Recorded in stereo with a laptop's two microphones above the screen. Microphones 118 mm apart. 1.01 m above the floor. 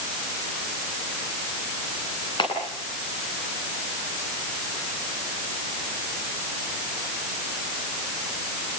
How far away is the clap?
About 9.5 m.